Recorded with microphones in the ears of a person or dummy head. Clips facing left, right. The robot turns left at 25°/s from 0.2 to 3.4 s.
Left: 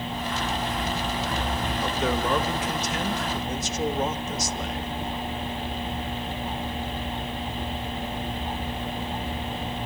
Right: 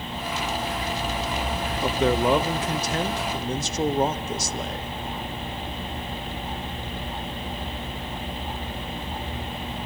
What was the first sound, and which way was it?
A man speaking, 25° right (ahead or behind).